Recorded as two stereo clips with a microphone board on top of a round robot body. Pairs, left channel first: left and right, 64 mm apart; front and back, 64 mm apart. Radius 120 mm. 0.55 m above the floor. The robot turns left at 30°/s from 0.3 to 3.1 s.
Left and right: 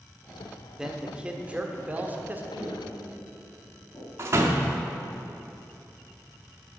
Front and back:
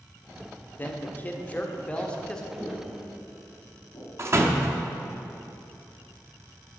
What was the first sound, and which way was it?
A man speaking, 20° right.